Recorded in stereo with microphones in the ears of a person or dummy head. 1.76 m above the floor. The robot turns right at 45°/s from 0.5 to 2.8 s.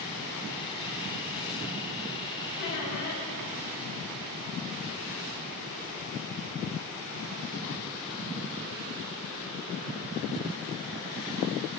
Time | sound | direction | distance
2.6 | a squeak | 30° left (ahead or behind) | 0.9 m